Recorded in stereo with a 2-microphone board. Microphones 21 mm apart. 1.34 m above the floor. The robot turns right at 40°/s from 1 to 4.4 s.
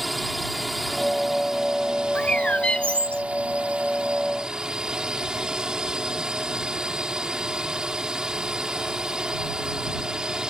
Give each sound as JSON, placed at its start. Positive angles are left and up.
{"t": 0.0, "sound": "a drone", "azimuth_deg": 180}
{"t": 2.1, "sound": "a bird", "azimuth_deg": 65}